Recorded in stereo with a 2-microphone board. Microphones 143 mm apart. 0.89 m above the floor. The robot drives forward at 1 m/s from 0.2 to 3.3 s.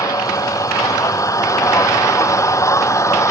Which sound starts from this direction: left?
An engine running, at 0.0 s.